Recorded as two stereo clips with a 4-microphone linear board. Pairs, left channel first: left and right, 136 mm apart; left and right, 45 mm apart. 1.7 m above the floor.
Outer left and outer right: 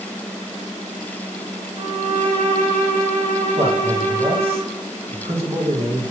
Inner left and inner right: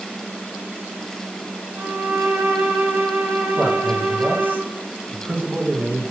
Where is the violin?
80° right, 7.5 m.